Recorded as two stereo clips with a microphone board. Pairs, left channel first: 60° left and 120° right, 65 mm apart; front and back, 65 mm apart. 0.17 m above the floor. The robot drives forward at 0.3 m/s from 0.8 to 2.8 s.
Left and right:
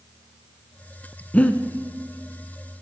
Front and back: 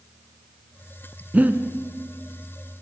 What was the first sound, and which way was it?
Breathing, 120° left.